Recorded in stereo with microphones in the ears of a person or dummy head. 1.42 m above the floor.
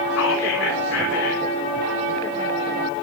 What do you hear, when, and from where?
0.1 s whispering: 85° left, 4 m